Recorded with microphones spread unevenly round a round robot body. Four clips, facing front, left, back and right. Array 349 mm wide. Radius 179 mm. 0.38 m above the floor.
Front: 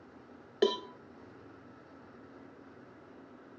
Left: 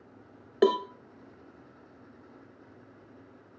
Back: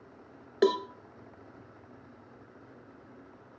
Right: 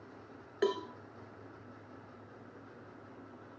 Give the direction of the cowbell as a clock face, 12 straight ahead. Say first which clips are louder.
Left 9 dB, back 4 dB; 9 o'clock.